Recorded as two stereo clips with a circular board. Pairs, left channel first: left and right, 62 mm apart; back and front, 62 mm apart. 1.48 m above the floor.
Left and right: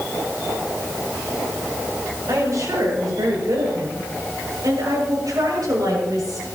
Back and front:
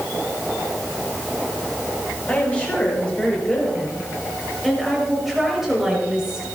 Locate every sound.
2.3 s a woman speaking: 115° right, 7 m; by 6.5 s 80° right, 6.5 m